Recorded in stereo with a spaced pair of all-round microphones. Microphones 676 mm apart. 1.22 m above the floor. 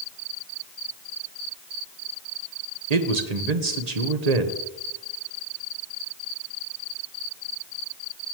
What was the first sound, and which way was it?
A man speaking, 70° right (ahead or behind).